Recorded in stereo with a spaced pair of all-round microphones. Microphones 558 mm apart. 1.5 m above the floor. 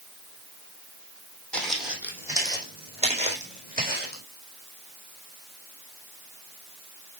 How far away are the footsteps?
About 3.5 m.